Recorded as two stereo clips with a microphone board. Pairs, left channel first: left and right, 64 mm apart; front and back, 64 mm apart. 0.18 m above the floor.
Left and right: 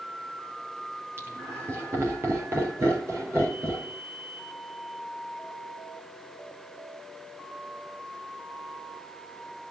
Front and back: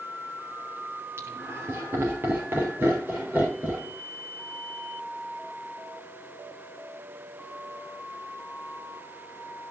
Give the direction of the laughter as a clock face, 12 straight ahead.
5 o'clock.